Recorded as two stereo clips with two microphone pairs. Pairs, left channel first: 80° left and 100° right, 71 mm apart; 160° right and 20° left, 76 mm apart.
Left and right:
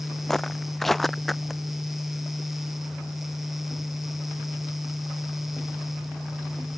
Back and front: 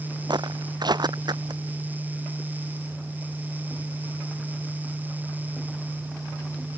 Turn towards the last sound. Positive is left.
turn(degrees=-10)